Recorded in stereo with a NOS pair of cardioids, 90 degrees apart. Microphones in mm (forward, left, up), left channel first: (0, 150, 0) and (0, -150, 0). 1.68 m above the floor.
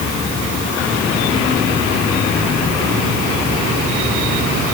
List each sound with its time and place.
Only background noise.